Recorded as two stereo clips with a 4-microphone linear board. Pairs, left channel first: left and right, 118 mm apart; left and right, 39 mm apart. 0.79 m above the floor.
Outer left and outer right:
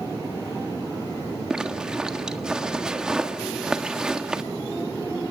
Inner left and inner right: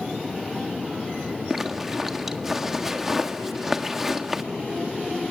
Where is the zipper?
5° right (ahead or behind), 1.5 m.